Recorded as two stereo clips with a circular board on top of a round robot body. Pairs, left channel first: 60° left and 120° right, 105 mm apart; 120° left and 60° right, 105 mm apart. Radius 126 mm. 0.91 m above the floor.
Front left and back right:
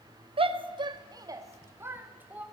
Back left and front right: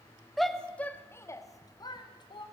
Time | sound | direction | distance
0.4 | a shout | 150° right | 1.8 m